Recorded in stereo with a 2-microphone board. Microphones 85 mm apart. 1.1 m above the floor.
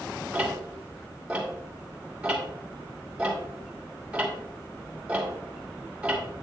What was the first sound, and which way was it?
Ticking, 15° right (ahead or behind).